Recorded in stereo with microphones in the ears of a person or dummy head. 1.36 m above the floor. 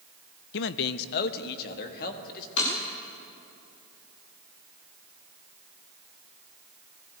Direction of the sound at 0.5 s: 65° left (ahead or behind).